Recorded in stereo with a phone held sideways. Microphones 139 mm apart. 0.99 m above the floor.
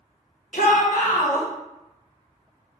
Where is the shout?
80° left, 0.8 m.